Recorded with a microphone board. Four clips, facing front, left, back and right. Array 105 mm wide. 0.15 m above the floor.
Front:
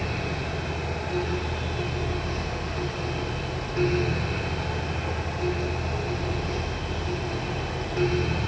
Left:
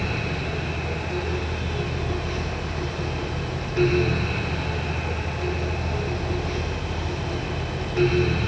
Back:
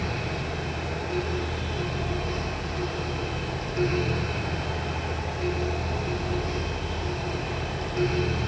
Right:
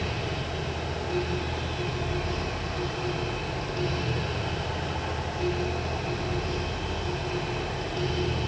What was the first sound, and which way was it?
Only background noise.